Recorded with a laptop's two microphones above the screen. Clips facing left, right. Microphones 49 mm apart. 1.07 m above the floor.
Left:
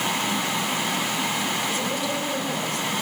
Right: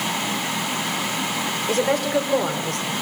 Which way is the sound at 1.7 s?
80° right.